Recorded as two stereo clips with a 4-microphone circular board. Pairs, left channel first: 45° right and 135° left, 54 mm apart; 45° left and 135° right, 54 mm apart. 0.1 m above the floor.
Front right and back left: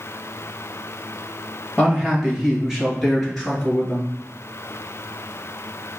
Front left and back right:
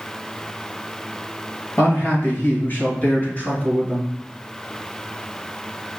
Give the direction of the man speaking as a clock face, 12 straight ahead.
10 o'clock.